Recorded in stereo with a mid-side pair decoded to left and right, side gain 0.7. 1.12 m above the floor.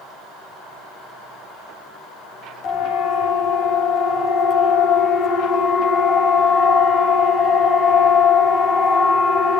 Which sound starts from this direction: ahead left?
A siren, at 2.6 s.